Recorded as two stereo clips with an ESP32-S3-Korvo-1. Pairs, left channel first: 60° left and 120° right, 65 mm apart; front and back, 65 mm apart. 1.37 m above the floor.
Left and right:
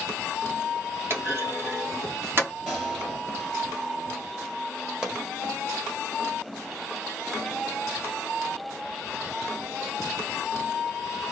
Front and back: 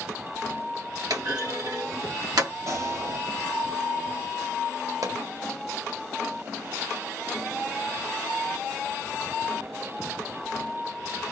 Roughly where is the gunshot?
Behind.